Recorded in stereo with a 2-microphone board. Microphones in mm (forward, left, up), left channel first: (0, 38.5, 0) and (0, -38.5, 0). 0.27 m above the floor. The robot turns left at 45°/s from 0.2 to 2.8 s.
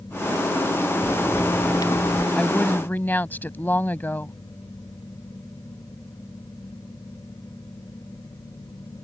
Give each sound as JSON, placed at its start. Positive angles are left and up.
{"t": 1.0, "sound": "a crack", "azimuth_deg": 160}
{"t": 2.4, "sound": "a woman speaking", "side_deg": 10}